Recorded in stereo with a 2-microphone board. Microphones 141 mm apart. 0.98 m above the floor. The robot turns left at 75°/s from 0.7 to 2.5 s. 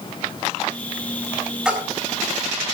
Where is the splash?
5° right (ahead or behind), 4 m; by 1.9 s 25° right (ahead or behind), 4 m.